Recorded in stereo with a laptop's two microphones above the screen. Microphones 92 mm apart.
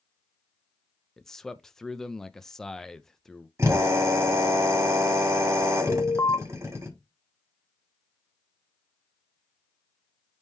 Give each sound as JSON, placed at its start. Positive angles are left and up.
{"t": 1.2, "sound": "a man speaking", "side_deg": 5, "distance_m": 0.7}
{"t": 3.6, "sound": "a drill", "side_deg": -35, "distance_m": 4.5}
{"t": 5.9, "sound": "an alarm", "side_deg": 30, "distance_m": 0.8}